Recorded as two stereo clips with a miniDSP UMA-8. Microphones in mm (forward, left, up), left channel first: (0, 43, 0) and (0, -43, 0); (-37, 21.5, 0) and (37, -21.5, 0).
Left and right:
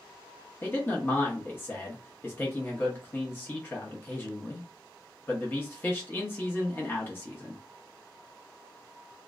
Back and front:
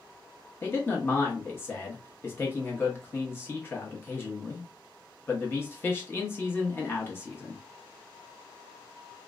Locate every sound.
0.6 s a man speaking: 120° left, 0.7 m